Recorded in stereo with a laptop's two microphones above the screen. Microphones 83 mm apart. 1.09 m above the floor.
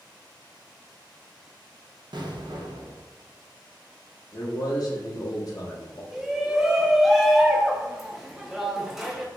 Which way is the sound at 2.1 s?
65° right (ahead or behind).